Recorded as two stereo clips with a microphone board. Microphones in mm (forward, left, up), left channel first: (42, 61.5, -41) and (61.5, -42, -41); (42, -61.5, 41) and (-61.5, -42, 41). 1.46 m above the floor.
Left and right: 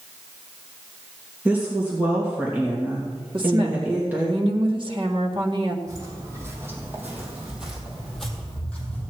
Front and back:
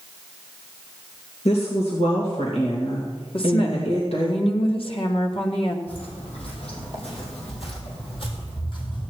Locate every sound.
1.4 s a woman speaking: 10° right, 2.5 m
3.3 s a woman speaking: 40° right, 1.9 m
5.9 s footsteps: 25° right, 4 m; by 9.1 s 30° left, 3.5 m